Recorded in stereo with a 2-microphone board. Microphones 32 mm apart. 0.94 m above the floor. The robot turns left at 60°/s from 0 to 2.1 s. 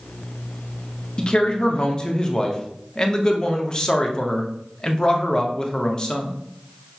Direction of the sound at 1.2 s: 30° left (ahead or behind).